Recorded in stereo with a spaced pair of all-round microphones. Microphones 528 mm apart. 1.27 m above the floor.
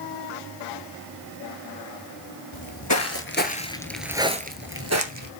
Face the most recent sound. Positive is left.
turn(degrees=-35)  # may be behind; listen again after turning